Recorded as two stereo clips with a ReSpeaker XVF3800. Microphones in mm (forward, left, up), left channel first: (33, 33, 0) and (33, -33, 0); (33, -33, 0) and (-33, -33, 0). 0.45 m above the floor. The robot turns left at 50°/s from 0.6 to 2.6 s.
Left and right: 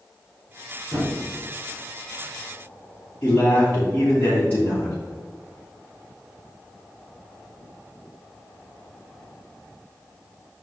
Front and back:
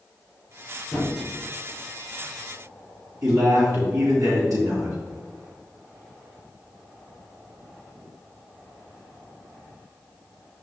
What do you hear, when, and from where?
0.9 s a thud: 65° right, 2 m; by 1.2 s 80° right, 2 m
3.2 s a man speaking: 155° left, 2.5 m